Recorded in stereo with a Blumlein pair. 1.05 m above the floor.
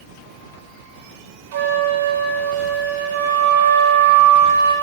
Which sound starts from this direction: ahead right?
A flute, at 1.5 s.